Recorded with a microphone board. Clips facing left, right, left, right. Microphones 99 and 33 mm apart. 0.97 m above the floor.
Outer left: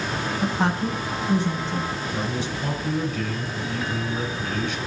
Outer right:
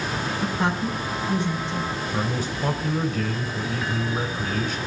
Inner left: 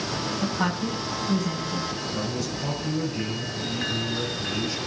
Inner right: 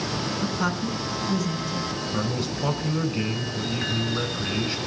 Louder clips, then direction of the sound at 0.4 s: Outer left 2 dB, inner left 1 dB; 30° left (ahead or behind).